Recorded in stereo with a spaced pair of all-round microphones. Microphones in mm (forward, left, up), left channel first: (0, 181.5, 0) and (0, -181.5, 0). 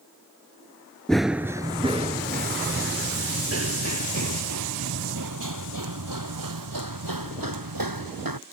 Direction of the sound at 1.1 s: Centre (ahead or behind).